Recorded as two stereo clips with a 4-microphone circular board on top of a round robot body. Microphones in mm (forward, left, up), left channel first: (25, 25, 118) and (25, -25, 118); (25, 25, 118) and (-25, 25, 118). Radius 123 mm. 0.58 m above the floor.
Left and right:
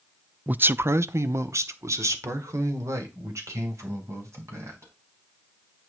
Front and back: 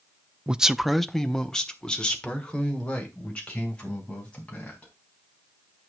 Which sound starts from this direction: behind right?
A man speaking, at 0.5 s.